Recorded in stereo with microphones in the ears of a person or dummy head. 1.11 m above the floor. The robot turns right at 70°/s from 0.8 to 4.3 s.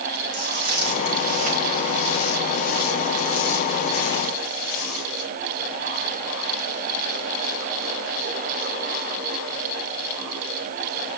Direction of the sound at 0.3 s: 80° right.